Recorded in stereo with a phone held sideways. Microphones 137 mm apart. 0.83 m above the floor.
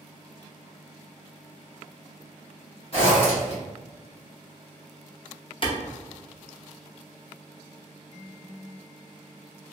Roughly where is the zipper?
Left.